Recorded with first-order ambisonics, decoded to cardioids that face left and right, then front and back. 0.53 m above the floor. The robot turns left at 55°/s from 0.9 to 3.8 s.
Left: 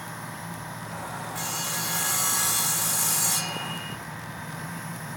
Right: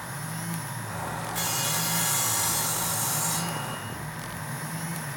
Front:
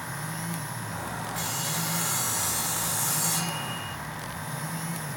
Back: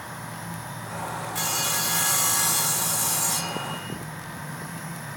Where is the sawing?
165° right, 1.2 m; by 4.0 s 60° left, 1.2 m.